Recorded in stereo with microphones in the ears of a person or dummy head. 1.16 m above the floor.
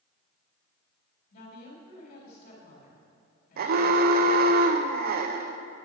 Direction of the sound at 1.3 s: 50° left (ahead or behind).